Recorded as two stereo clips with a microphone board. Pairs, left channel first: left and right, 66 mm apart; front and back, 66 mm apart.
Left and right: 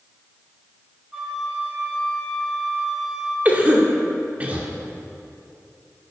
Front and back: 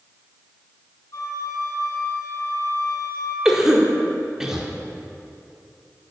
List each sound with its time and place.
1.1 s a flute: 10° right, 1.8 m
3.5 s a cough: 115° right, 1.3 m